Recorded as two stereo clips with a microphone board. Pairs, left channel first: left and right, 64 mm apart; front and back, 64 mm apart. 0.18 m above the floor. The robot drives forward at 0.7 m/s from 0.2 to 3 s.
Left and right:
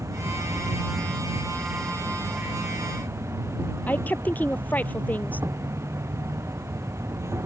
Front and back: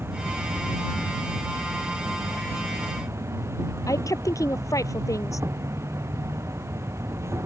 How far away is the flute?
No flute in this recording.